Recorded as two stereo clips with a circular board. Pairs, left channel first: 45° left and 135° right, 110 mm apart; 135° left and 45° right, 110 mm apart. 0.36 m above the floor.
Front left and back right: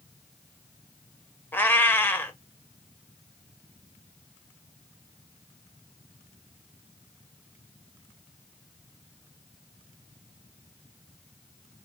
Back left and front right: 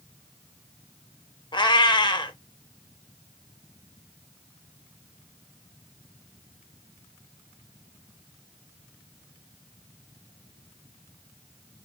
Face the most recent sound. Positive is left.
turn(degrees=110)